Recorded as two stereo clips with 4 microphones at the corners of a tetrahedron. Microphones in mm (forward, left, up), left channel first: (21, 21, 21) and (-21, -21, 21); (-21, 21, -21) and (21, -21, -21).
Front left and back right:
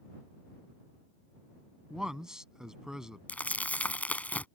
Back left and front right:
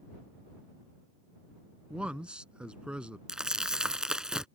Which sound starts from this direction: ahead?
Crumpling, at 3.3 s.